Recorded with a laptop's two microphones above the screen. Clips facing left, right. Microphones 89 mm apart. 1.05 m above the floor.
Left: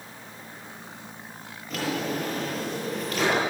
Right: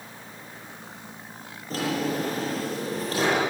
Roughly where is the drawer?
Right.